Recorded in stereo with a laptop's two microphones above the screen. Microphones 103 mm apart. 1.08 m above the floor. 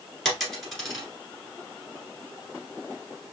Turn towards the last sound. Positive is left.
turn(degrees=0)  # may be behind; listen again after turning